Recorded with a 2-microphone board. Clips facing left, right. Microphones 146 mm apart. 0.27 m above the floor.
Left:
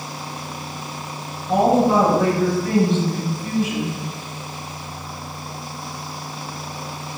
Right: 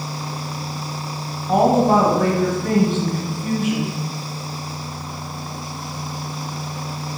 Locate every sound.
1.5 s a woman speaking: 50° right (ahead or behind), 1.3 m